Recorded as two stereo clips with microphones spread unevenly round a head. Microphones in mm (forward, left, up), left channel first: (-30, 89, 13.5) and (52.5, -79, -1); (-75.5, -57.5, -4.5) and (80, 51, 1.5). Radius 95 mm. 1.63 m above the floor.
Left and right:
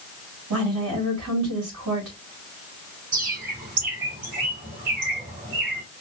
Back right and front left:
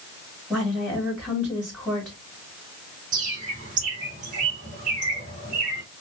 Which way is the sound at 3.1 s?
15° right.